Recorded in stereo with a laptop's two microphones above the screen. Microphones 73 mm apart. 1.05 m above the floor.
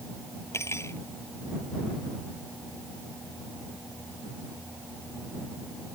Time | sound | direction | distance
0.5 | cutlery clinking | 40° left (ahead or behind) | ?